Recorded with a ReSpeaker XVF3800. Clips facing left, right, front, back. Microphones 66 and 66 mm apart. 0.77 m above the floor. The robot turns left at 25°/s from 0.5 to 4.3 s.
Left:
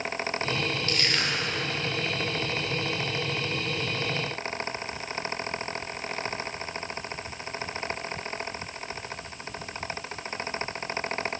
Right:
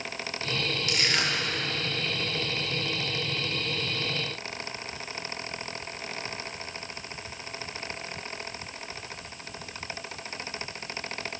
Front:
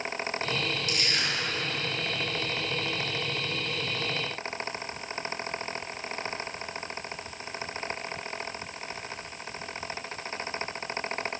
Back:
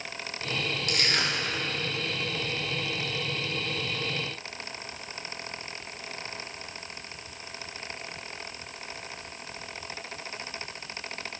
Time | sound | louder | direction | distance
0.9 | crushing | even, back 2 dB | 165° right | 1.9 m